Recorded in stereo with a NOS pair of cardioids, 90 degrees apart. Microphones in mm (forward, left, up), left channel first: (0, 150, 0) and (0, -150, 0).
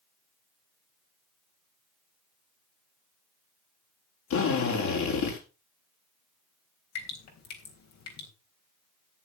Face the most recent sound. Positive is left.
turn(degrees=65)